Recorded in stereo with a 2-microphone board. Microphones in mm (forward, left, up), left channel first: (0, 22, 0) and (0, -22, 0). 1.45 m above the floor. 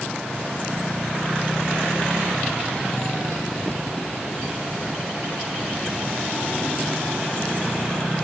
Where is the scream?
I don't hear a scream.